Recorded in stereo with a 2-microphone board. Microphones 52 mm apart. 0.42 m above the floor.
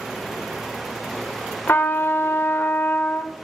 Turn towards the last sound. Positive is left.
turn(degrees=45)  # may be behind; listen again after turning